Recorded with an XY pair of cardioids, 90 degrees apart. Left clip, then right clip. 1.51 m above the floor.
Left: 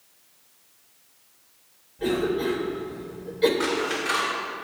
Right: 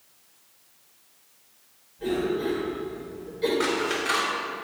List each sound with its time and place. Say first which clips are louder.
2.0 s a cough: left 2 dB; 55° left, 2.5 m
3.6 s scissors: even; 10° right, 3.5 m